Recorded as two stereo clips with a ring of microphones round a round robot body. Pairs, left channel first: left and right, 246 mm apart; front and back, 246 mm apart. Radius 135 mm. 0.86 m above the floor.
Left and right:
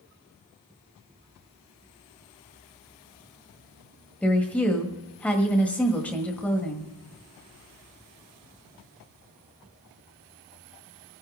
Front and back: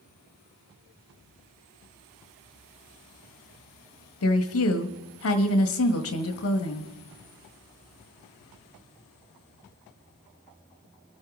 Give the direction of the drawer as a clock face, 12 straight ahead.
No drawer in this recording.